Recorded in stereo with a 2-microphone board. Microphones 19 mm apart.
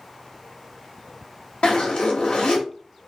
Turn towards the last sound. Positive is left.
turn(degrees=65)  # may be behind; listen again after turning